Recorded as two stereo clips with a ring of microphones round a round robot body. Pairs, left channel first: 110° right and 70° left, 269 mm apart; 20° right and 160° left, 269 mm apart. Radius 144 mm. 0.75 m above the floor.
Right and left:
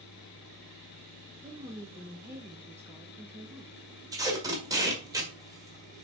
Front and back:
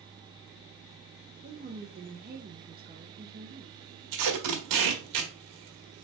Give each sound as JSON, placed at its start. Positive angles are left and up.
{"t": 1.4, "sound": "a woman speaking", "azimuth_deg": 140, "distance_m": 1.1}
{"t": 4.1, "sound": "tape being pulled", "azimuth_deg": 145, "distance_m": 1.6}